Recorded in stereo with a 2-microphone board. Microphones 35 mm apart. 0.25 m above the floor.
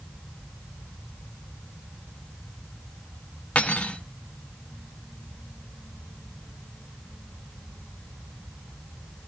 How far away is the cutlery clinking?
About 1.7 m.